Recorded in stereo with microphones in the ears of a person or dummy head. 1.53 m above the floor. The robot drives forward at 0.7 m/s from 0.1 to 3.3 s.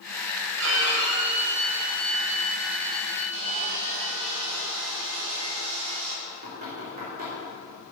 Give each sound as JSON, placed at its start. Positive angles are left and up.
{"t": 0.6, "sound": "a violin", "side_deg": -65, "distance_m": 1.3}
{"t": 3.3, "sound": "sawing", "side_deg": -75, "distance_m": 2.0}
{"t": 6.2, "sound": "knocking", "side_deg": -40, "distance_m": 3.0}